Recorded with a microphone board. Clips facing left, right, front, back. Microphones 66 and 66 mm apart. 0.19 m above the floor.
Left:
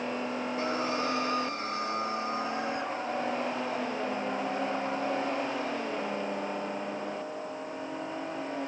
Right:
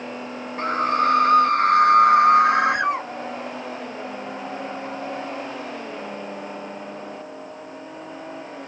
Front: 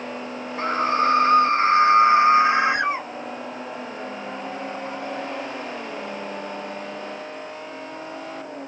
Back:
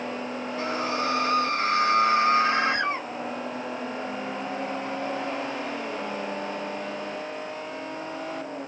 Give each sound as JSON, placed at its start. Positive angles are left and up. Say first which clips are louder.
{"t": 0.6, "sound": "a scream", "louder": "right 12 dB, front 8 dB", "azimuth_deg": -50}